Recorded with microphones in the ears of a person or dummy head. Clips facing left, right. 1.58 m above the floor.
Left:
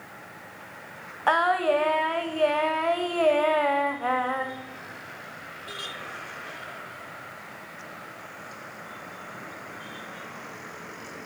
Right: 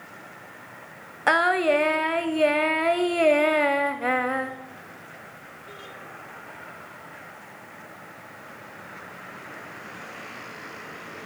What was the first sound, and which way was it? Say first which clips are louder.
Singing: right 2 dB; 30° right (ahead or behind).